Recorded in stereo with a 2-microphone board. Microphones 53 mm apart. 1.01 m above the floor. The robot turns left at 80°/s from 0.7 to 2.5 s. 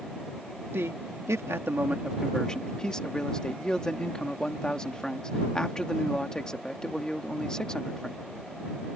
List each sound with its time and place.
0.7 s a man speaking: 55° right; by 8.2 s 165° left